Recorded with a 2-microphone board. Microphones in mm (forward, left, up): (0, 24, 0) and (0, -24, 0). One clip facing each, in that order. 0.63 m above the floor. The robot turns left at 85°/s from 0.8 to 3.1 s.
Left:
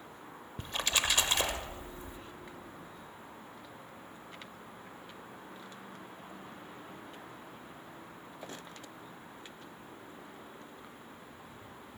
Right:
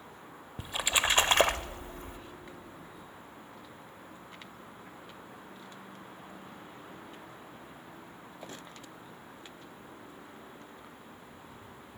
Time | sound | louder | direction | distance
0.6 | a splash | right 3 dB | 10° right | 0.5 m